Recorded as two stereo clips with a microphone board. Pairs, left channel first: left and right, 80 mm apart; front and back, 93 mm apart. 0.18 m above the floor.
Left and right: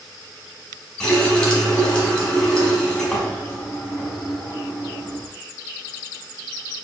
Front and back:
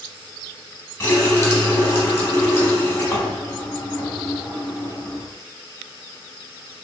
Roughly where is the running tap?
Ahead left.